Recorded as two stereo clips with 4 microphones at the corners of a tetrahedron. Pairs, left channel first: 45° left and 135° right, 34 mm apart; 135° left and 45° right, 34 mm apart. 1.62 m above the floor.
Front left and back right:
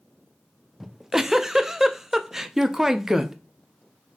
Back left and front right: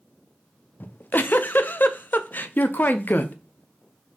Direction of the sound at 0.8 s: 150° left.